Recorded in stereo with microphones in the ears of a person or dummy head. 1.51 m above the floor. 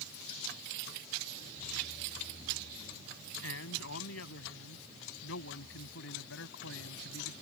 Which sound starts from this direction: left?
A man speaking, at 3.4 s.